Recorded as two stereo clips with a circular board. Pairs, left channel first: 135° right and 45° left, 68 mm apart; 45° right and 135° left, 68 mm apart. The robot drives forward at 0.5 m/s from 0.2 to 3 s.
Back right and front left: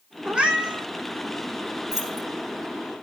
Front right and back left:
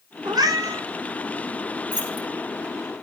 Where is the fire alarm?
No fire alarm in this recording.